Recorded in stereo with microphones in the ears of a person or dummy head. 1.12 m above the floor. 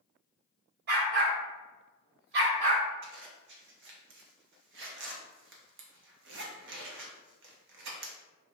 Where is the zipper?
60° right (ahead or behind), 0.8 m.